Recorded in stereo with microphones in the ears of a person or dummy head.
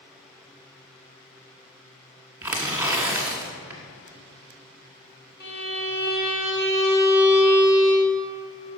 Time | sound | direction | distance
2.4 | tearing paper | 5° right (ahead or behind) | 1.4 m
5.4 | a violin | 50° left (ahead or behind) | 2.5 m